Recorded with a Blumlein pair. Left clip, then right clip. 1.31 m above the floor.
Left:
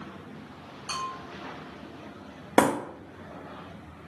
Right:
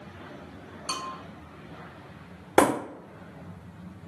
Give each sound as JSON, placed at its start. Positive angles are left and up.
{"t": 0.9, "sound": "a bell", "azimuth_deg": -70, "distance_m": 0.9}
{"t": 2.6, "sound": "breaking glass", "azimuth_deg": 5, "distance_m": 1.4}